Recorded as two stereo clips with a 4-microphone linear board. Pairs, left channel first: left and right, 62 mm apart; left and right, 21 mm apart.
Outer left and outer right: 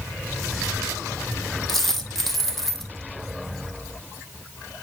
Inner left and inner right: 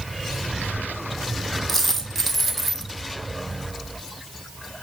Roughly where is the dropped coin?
Centre.